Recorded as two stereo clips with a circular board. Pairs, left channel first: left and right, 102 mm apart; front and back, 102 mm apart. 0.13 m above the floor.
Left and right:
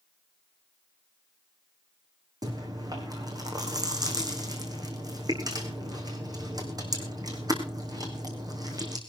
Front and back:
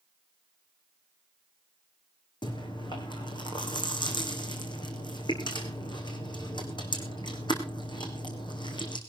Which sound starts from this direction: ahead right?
Chewing, at 2.4 s.